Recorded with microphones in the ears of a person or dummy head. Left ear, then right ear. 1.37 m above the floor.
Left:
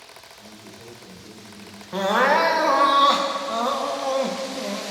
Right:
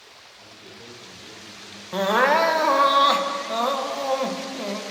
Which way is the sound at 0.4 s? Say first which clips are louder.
Even; 30° right (ahead or behind).